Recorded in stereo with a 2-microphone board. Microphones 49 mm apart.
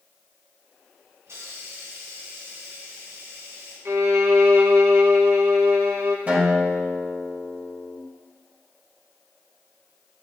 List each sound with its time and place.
1.3 s a hiss: 65° right (ahead or behind), 7.5 m
3.9 s a violin: 55° right (ahead or behind), 1.4 m
6.3 s a guitar: 30° right (ahead or behind), 4.5 m